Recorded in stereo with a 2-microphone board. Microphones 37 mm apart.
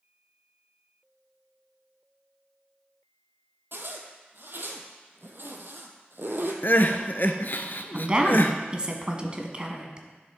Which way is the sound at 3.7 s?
65° right (ahead or behind).